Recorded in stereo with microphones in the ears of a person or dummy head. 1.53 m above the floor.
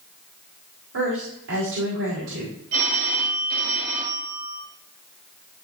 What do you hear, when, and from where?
0.9 s a woman speaking: 75° right (ahead or behind), 5 m
2.7 s a phone ringing: 55° right (ahead or behind), 4 m